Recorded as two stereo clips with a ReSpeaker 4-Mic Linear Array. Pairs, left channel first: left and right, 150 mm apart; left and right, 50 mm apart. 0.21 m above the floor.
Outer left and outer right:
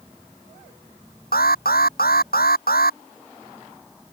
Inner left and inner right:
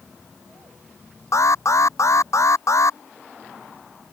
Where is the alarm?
80° left.